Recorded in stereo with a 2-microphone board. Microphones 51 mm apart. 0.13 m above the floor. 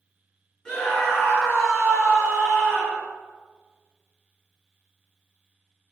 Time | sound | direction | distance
0.7 | a scream | 30° left (ahead or behind) | 1.8 m